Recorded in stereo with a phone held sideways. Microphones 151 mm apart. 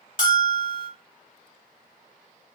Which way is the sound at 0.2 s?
60° left (ahead or behind).